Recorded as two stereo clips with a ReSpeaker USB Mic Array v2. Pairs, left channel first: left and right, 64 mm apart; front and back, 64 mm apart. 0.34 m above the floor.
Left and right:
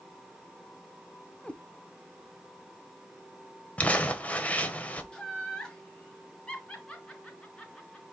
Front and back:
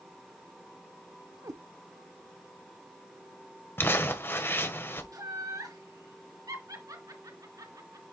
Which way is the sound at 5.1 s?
165° left.